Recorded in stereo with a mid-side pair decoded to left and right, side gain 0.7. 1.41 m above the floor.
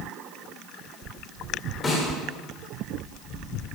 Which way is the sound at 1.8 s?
25° left.